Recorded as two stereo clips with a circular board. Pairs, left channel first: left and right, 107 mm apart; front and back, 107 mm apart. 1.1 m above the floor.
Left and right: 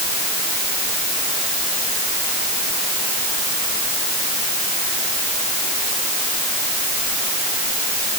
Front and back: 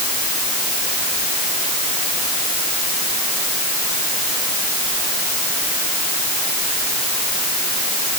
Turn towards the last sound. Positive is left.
No sound to turn to.